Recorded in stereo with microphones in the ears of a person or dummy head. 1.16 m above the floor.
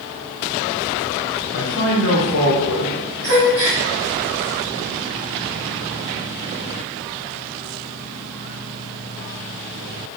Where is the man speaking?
55° left (ahead or behind), 0.6 m.